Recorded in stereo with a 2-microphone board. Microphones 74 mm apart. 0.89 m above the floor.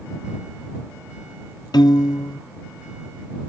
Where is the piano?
70° left (ahead or behind).